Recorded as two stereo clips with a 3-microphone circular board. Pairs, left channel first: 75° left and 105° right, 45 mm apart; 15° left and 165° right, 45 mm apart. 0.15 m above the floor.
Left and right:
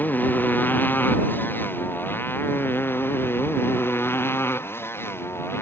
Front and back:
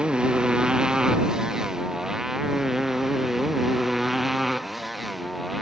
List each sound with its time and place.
0.0 s a motorcycle: 125° left; by 5.6 s 105° left